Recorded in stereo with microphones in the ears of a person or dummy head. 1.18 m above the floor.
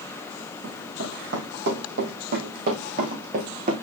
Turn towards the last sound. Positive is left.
turn(degrees=-40)  # may be behind; listen again after turning